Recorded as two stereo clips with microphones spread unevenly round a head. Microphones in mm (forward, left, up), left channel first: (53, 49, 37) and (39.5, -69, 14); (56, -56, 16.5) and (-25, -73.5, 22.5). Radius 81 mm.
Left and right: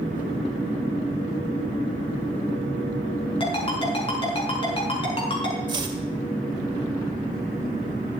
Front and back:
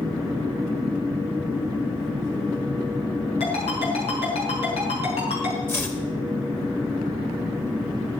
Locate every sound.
3.4 s a ringtone: 40° left, 5 m
5.7 s chopping: 50° right, 2.0 m